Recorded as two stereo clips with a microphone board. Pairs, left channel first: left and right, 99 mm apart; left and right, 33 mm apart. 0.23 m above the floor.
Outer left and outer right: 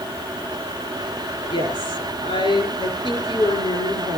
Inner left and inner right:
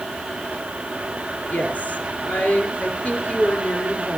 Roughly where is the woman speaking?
Left.